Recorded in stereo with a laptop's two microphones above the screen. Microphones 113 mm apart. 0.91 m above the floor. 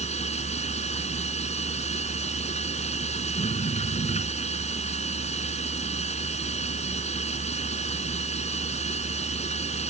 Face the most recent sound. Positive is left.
turn(degrees=90)